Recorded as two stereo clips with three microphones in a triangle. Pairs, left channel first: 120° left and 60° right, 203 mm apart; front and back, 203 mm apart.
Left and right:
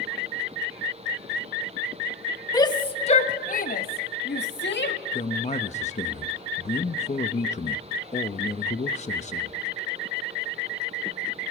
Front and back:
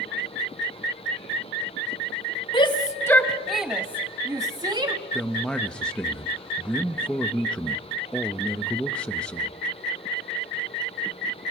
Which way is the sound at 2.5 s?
55° left.